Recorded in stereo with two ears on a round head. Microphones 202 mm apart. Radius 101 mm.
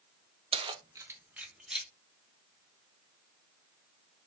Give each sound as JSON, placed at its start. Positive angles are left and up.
{"t": 0.5, "sound": "keys jangling", "side_deg": -25, "distance_m": 0.6}